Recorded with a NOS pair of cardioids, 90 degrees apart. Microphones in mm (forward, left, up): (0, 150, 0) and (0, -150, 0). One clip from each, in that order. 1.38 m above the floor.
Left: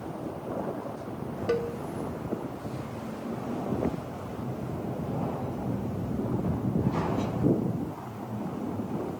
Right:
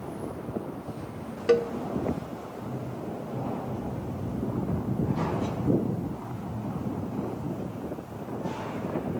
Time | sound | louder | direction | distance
1.5 | a cowbell | right 6 dB | 30° right | 0.7 m